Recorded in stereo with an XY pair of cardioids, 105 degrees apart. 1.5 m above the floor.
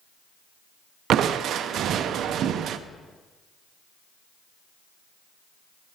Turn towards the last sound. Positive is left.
turn(degrees=-65)